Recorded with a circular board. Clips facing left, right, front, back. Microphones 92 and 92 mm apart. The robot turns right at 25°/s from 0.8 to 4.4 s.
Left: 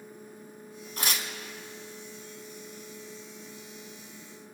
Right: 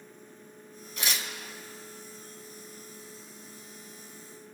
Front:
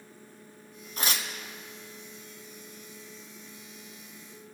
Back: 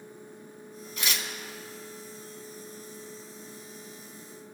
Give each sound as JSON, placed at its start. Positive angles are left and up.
{"t": 1.0, "sound": "tearing paper", "azimuth_deg": 45, "distance_m": 1.2}